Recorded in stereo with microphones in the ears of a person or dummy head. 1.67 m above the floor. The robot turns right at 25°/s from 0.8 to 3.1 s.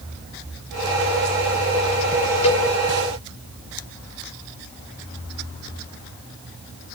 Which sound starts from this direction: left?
A cowbell, at 2.4 s.